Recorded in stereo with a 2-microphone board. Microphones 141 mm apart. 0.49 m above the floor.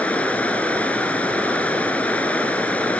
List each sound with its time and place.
0.0 s running water: 10° left (ahead or behind), 1.1 m